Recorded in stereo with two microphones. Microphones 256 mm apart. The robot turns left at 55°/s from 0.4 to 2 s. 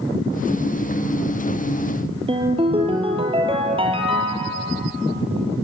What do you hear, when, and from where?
2.3 s a ringtone: 20° right (ahead or behind), 2 m